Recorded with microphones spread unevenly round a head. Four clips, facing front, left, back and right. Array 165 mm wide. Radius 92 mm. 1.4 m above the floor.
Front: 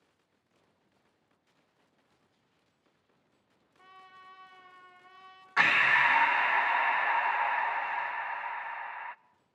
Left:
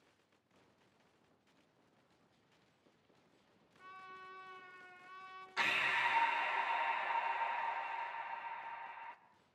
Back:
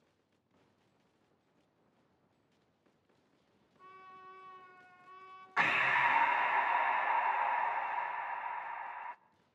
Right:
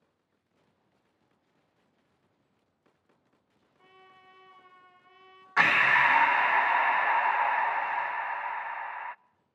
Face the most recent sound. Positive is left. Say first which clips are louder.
# right 14 dB, front 5 dB
turn(degrees=-55)